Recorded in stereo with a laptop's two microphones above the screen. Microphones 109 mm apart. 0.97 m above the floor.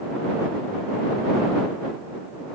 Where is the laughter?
No laughter in this recording.